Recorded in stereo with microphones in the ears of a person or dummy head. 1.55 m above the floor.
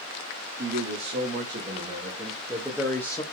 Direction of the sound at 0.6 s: 45° right (ahead or behind).